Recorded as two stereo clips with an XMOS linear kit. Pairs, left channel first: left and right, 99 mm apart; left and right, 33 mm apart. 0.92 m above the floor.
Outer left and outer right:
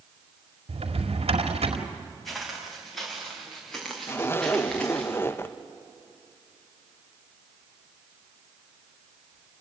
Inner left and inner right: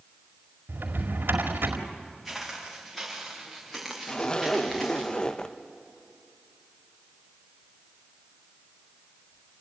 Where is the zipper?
25° left (ahead or behind), 0.8 m.